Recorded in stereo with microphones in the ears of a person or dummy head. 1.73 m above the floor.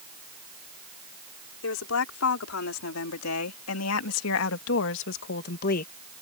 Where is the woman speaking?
75° left (ahead or behind); by 5.9 s 45° left (ahead or behind).